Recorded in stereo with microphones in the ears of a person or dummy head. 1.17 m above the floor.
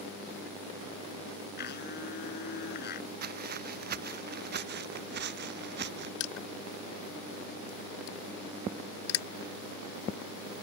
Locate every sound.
1.6 s a blender: 55° left (ahead or behind)
3.2 s footsteps: 45° right (ahead or behind); by 6.1 s 50° right (ahead or behind)
6.2 s crushing: 80° left